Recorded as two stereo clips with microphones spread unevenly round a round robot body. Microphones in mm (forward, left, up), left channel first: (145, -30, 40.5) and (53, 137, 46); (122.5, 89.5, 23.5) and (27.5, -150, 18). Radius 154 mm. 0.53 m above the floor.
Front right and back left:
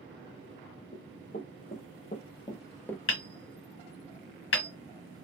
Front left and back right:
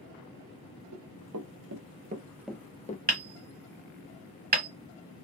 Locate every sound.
0.9 s running footsteps: 125° right, 1.1 m; by 3.0 s 20° left, 0.7 m
3.1 s hammering: 60° right, 1.4 m